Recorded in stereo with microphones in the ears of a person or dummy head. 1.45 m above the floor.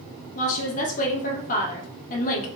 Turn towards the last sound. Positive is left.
turn(degrees=45)  # may be behind; listen again after turning